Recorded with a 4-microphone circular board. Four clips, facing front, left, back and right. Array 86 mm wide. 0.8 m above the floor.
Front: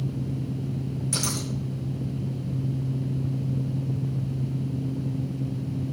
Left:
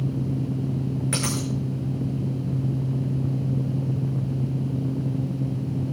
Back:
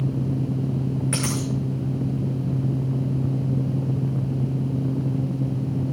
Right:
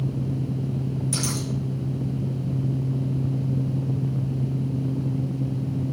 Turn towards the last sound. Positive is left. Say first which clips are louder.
# left 1 dB, back 5 dB
turn(degrees=130)